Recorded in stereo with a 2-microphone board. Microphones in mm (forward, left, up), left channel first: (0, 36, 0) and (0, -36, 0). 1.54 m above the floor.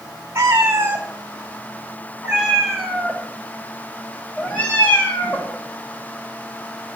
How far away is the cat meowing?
About 3 m.